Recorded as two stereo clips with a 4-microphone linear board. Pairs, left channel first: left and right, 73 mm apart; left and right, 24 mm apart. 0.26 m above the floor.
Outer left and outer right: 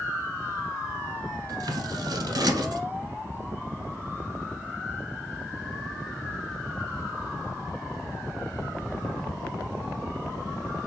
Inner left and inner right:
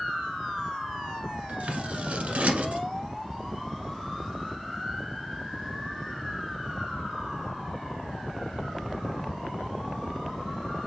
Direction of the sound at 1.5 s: 75° right (ahead or behind).